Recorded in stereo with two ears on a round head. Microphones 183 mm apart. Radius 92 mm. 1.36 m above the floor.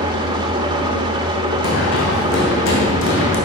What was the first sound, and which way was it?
An engine running, 20° right (ahead or behind).